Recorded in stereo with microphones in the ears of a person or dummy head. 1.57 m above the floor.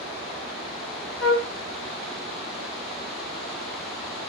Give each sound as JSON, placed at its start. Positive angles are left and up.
{"t": 1.2, "sound": "a flute", "side_deg": 70, "distance_m": 1.2}